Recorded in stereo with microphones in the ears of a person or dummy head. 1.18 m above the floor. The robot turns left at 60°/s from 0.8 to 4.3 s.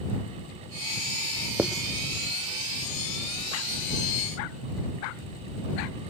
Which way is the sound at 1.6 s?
5° right (ahead or behind).